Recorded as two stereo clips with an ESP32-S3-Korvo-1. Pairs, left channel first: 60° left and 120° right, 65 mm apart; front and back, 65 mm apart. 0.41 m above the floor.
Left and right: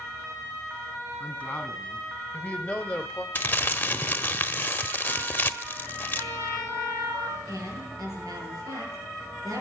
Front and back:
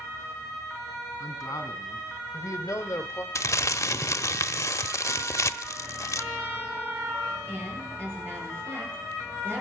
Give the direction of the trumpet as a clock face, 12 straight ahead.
4 o'clock.